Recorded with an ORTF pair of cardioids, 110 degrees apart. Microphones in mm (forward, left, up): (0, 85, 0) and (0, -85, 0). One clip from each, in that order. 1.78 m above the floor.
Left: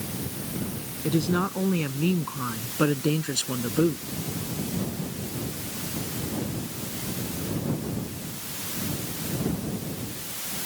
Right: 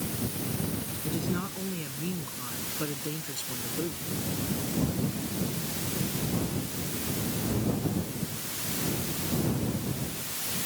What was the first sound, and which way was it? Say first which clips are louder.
A woman speaking: left 9 dB; 55° left.